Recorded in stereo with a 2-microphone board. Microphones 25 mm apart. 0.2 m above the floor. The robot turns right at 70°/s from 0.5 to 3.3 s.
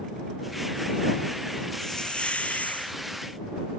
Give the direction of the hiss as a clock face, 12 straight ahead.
11 o'clock.